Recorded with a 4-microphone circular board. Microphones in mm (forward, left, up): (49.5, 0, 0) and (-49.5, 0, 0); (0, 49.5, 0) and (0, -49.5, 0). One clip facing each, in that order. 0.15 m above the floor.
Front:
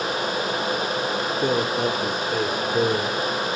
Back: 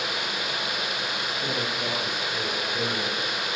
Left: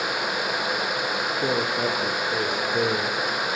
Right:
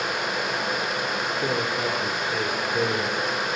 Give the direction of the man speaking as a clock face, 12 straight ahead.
11 o'clock.